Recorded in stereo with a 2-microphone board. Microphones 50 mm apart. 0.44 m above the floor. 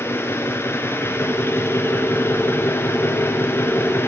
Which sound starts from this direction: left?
An engine running, at 0.0 s.